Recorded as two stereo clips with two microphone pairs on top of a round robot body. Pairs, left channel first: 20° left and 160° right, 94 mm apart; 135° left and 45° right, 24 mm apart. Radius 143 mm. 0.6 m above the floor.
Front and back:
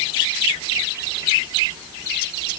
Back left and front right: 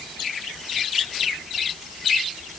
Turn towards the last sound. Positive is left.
No sound to turn to.